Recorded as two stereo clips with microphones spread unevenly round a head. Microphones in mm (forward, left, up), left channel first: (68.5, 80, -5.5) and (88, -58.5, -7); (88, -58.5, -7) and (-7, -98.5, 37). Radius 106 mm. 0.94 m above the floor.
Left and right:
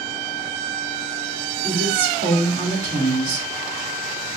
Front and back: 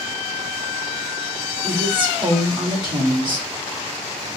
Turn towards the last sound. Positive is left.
turn(degrees=-105)